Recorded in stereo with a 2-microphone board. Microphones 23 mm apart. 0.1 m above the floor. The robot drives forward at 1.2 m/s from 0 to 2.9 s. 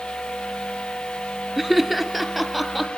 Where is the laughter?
5° right (ahead or behind), 1.3 m.